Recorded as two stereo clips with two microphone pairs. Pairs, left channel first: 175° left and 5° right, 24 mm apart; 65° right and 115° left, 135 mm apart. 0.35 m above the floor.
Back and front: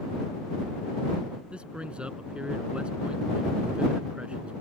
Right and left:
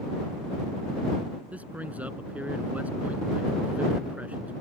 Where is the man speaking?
35° left.